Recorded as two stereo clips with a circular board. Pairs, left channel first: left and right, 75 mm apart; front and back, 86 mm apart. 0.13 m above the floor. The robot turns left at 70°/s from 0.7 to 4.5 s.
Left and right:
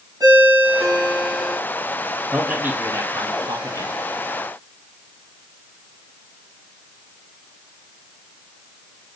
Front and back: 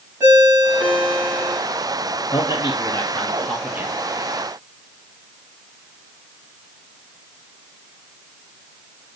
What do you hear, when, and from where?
0.2 s a ringtone: 130° right, 4.5 m; by 1.6 s 165° left, 4.5 m
2.3 s a man speaking: 5° right, 2.5 m; by 3.9 s 120° right, 2.5 m